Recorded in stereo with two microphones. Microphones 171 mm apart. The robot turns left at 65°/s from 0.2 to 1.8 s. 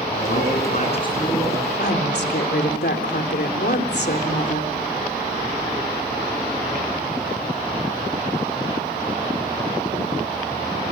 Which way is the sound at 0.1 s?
85° left.